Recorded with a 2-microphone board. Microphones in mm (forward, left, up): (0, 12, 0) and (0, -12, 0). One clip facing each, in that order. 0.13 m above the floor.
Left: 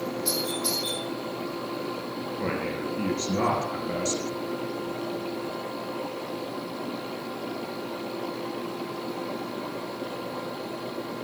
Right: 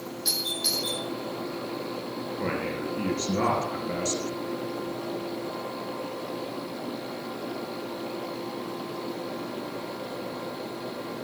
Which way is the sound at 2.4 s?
5° right (ahead or behind).